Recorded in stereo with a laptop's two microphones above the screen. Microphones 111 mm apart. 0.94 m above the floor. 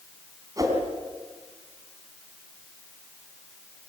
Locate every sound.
0.6 s a whoosh: 30° right (ahead or behind), 4 m